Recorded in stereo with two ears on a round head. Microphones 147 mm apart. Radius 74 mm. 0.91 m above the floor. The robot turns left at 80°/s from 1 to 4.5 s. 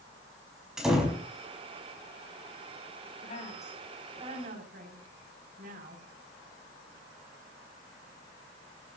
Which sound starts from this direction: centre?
A door slam, at 0.8 s.